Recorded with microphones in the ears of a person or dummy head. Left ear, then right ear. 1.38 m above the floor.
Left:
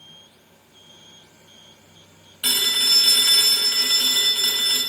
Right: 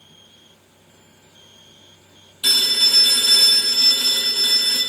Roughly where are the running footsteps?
I don't hear running footsteps.